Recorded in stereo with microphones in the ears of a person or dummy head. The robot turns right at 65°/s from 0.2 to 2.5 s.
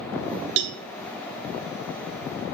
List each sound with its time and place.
0.6 s a cowbell: 65° right (ahead or behind), 0.9 m; by 0.8 s 60° right (ahead or behind), 0.9 m